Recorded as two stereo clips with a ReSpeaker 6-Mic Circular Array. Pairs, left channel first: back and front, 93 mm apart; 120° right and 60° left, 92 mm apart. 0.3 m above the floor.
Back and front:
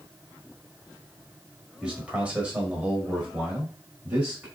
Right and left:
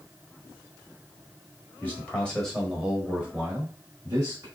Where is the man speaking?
70° right, 1.4 m; by 4.5 s 65° left, 1.5 m.